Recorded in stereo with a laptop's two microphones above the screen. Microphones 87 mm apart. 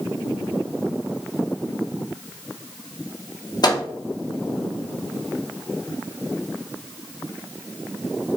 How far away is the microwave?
About 0.5 m.